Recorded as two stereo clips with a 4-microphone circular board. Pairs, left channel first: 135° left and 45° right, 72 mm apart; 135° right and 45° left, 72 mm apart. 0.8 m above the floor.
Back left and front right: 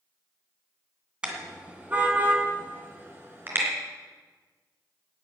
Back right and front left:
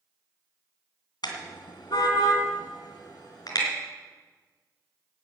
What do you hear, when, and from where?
1.2 s a car horn: 120° right, 2.5 m; by 3.6 s 105° right, 4 m